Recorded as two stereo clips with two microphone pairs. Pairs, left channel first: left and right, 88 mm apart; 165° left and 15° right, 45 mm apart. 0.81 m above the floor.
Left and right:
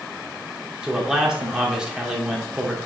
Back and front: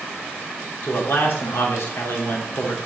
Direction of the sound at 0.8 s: 170° right.